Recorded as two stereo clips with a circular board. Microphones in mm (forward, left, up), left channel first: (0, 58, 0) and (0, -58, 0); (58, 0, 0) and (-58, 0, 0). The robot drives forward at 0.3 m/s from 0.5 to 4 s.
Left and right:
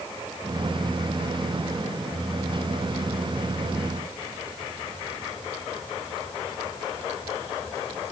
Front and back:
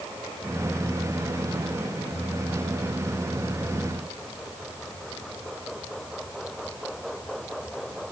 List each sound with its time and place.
Only background noise.